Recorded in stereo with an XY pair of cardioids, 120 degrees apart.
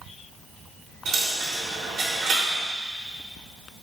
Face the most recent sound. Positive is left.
turn(degrees=-55)